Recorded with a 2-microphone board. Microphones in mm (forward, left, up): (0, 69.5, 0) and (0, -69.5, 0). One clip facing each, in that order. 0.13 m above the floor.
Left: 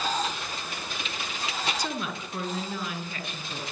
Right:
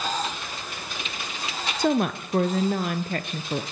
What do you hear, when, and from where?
1.8 s a woman speaking: 55° right (ahead or behind), 2.5 m